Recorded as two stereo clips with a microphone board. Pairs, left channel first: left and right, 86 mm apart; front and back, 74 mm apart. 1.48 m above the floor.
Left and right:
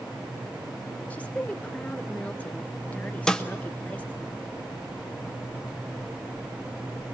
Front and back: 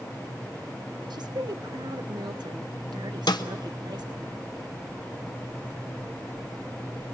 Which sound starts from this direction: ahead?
A snare drum, at 3.3 s.